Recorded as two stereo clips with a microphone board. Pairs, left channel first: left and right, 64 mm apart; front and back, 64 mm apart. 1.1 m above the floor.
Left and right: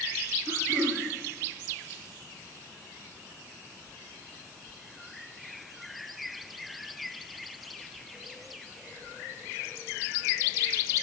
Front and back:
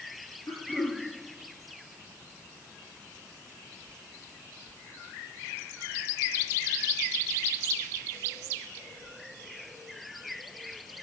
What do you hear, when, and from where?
0.5 s throat clearing: 55° right, 4 m